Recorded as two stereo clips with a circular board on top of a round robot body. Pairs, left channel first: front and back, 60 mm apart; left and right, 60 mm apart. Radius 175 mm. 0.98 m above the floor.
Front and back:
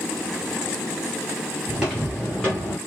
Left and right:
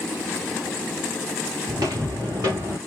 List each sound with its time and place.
1.7 s footsteps: 95° right, 1.2 m; by 2.8 s 30° right, 0.9 m